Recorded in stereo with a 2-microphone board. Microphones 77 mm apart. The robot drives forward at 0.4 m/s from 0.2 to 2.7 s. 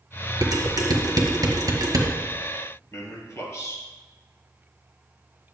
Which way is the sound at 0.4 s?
55° right (ahead or behind).